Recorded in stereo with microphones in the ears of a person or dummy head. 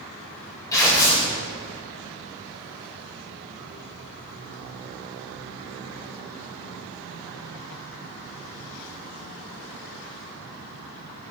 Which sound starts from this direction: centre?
Tearing paper, at 0.7 s.